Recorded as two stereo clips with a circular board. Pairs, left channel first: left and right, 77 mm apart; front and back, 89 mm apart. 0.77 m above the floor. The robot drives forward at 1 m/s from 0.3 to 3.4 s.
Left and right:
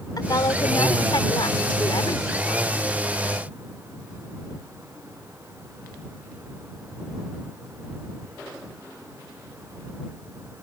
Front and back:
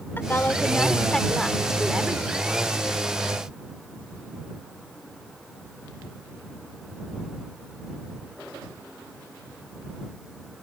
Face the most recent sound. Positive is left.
turn(degrees=125)